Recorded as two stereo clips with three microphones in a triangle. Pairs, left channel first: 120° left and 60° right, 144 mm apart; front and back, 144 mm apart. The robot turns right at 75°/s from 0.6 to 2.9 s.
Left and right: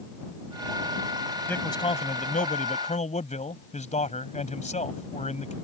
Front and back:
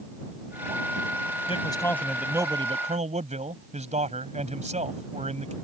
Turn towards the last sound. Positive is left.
turn(degrees=150)